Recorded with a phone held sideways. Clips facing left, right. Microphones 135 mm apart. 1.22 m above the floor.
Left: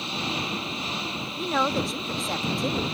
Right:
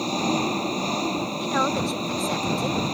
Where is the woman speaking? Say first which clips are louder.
Left 1 dB; centre (ahead or behind).